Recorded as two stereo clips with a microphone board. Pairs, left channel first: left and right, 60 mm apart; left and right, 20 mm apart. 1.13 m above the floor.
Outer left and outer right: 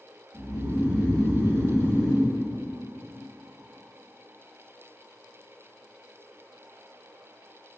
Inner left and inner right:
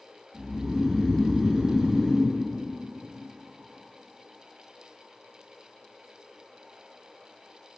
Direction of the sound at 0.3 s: 10° right (ahead or behind).